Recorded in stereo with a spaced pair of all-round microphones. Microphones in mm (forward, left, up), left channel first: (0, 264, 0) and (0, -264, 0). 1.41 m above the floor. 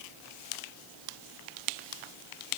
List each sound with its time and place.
Only background noise.